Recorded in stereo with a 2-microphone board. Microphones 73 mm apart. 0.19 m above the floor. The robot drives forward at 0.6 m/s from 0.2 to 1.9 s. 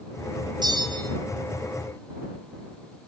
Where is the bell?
70° right (ahead or behind), 1.3 m; by 1.1 s 80° right, 1.2 m.